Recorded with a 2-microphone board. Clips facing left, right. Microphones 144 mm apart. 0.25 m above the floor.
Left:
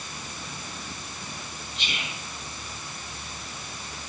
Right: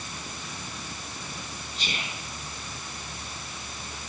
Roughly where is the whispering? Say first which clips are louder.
Right 1 dB; right.